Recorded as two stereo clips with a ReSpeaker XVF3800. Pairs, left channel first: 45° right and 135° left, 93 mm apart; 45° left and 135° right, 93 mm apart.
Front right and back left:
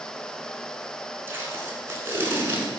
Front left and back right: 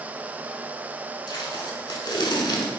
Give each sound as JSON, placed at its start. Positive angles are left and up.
{"t": 1.3, "sound": "tape being pulled", "azimuth_deg": 75, "distance_m": 0.7}